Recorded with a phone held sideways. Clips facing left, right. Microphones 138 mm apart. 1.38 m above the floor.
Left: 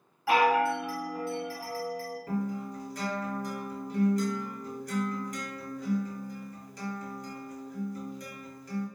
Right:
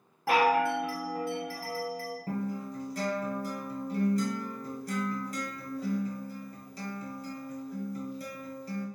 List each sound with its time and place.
0.3 s a chime: 45° right (ahead or behind), 2.0 m
2.3 s a guitar: 35° right (ahead or behind), 1.7 m